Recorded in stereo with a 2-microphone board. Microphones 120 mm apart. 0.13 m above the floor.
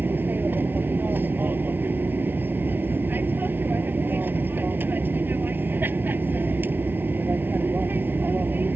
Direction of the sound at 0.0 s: 15° right (ahead or behind).